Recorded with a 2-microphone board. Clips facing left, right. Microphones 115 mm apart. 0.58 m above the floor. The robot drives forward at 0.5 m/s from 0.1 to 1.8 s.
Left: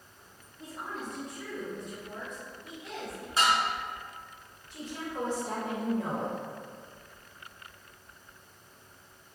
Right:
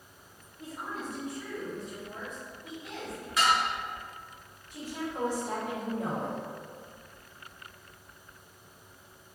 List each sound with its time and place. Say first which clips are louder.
0.6 s a woman speaking: right 1 dB; 10° right (ahead or behind), 0.7 m; by 3.3 s 5° right (ahead or behind), 1.0 m
3.4 s dishes clattering: even; 30° left (ahead or behind), 0.7 m
4.7 s a woman speaking: right 1 dB; 15° right (ahead or behind), 1.6 m